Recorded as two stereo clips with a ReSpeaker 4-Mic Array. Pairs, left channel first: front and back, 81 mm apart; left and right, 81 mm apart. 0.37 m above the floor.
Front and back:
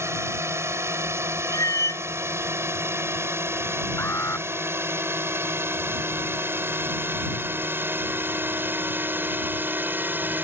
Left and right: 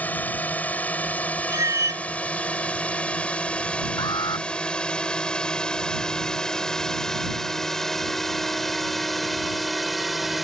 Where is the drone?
150° left; by 10.4 s 175° right.